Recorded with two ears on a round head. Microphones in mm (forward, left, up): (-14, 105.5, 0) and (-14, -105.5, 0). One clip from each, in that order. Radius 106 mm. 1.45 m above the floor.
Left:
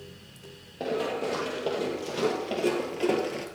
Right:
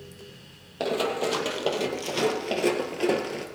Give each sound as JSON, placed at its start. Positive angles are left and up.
{"t": 0.8, "sound": "running footsteps", "side_deg": -55, "distance_m": 2.5}